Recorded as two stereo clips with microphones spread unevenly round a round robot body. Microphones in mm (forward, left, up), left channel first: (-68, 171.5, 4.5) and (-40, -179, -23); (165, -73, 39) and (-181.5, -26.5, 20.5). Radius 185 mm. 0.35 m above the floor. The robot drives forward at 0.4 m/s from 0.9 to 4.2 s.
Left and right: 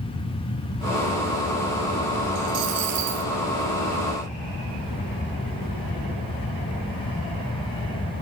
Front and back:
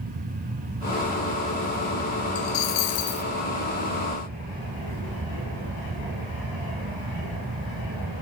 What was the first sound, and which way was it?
A dropped coin, 35° right.